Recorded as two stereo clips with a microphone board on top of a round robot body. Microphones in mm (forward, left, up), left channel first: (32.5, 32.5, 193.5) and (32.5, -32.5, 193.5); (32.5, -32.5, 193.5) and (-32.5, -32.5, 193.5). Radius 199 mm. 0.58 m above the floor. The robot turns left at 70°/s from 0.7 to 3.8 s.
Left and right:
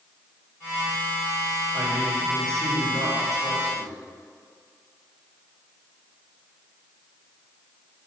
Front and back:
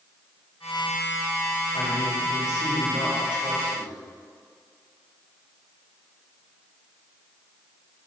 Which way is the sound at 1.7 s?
10° left.